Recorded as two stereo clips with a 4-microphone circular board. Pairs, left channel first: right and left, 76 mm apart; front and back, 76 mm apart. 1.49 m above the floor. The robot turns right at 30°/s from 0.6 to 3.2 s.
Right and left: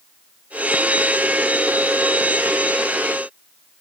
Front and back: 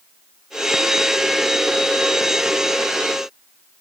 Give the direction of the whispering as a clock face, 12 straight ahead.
No whispering in this recording.